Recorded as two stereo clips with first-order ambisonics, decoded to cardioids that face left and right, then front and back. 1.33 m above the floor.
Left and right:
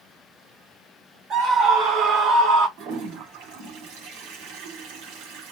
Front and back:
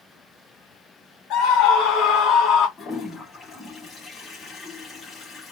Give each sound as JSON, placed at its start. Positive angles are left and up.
{"t": 1.3, "sound": "a scream", "azimuth_deg": -35, "distance_m": 2.0}
{"t": 2.8, "sound": "a toilet flushing", "azimuth_deg": -75, "distance_m": 3.0}